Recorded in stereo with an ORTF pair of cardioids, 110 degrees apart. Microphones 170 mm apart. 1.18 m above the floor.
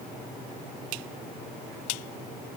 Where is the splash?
I don't hear a splash.